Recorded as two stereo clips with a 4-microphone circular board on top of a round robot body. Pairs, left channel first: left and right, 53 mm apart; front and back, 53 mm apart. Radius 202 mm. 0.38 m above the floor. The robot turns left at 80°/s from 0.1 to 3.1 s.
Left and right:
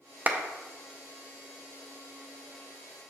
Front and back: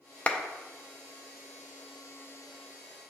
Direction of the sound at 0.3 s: 55° right.